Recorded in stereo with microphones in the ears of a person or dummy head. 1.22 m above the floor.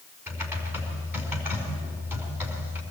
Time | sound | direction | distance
0.3 | typing on a keyboard | 10° right (ahead or behind) | 5 m